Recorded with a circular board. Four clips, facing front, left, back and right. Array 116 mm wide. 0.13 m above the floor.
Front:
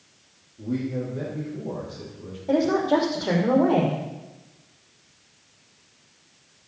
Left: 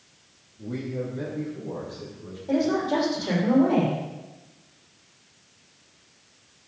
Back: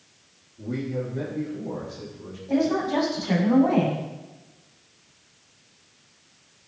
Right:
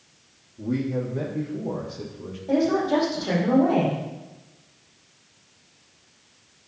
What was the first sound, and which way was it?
A man speaking, 90° right.